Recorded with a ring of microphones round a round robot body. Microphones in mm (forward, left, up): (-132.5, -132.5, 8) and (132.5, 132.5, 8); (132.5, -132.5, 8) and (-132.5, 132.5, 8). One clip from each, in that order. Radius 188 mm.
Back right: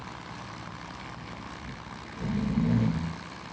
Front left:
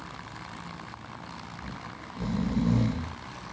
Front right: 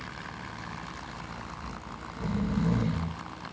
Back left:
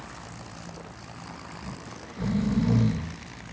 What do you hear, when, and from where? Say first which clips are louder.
1.6 s snoring: front left 1 dB, front right 1 dB; 80° left, 6.5 m